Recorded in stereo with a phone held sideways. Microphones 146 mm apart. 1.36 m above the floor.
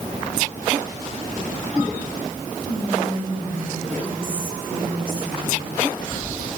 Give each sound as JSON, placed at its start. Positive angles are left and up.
{"t": 2.6, "sound": "whispering", "side_deg": -80, "distance_m": 7.5}